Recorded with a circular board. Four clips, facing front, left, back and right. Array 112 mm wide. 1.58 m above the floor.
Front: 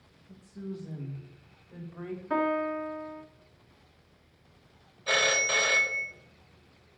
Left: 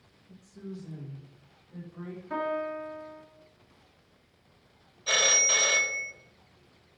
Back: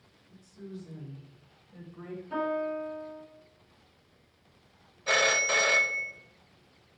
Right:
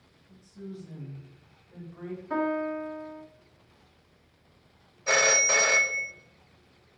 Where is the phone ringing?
105° right, 0.8 m.